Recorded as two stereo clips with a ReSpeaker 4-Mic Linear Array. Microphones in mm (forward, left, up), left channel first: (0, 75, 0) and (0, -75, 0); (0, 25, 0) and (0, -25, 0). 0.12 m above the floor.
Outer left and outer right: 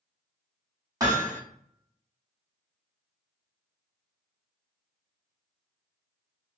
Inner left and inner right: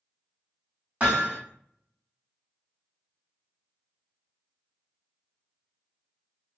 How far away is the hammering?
About 2 m.